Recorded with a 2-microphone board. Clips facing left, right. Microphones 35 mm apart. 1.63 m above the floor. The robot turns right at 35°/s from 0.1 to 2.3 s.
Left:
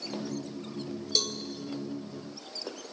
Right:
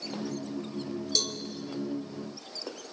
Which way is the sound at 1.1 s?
10° left (ahead or behind).